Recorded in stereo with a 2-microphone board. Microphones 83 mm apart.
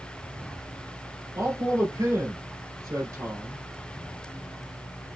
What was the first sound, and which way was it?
A man speaking, 50° right (ahead or behind).